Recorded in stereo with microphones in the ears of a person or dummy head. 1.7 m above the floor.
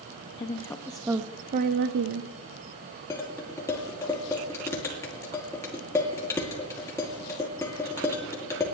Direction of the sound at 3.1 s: 15° left (ahead or behind).